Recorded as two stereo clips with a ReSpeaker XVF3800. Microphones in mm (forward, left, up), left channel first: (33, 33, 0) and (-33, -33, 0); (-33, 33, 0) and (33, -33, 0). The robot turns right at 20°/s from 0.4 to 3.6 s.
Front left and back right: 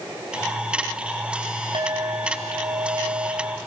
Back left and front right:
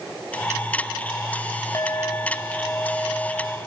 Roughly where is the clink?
Behind.